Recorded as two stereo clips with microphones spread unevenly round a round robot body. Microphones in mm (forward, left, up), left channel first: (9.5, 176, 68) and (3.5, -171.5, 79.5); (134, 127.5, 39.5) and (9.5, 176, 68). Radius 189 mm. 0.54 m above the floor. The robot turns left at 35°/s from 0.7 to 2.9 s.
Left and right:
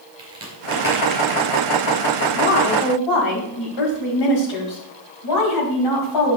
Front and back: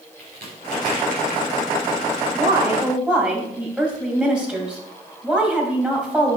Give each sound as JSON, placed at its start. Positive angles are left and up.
{"t": 0.2, "sound": "a crack", "azimuth_deg": -165, "distance_m": 3.5}
{"t": 2.3, "sound": "a woman speaking", "azimuth_deg": 95, "distance_m": 3.5}